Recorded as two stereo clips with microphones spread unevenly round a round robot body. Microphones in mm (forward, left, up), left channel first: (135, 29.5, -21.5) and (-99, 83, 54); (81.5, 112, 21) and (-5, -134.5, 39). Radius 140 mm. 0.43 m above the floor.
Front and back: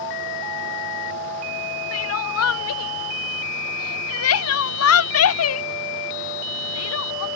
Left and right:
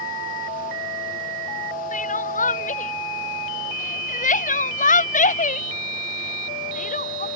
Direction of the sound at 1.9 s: 10° left.